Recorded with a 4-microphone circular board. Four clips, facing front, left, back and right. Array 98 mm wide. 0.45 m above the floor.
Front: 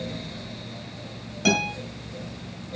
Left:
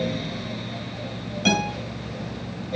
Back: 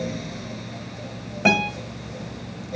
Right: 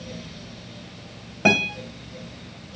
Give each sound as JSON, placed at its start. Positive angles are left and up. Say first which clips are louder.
{"t": 1.4, "sound": "a guitar", "louder": "right 2 dB, back 3 dB", "azimuth_deg": -125, "distance_m": 2.5}